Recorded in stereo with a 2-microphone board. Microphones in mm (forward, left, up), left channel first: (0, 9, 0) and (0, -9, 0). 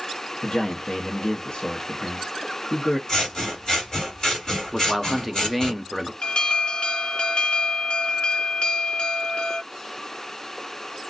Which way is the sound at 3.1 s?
35° left (ahead or behind).